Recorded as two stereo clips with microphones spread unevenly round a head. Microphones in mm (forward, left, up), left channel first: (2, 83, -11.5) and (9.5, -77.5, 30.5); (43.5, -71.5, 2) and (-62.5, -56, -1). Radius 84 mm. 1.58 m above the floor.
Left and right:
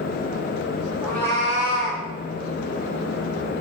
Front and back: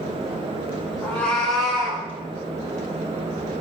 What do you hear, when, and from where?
1.0 s a cat meowing: 45° right, 0.8 m; by 2.0 s 85° left, 1.0 m